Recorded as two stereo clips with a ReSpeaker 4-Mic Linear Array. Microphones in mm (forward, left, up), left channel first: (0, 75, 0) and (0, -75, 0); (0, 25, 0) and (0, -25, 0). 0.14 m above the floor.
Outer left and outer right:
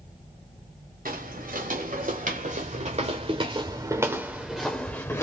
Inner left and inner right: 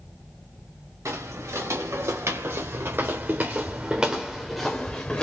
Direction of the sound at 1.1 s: 75° right (ahead or behind).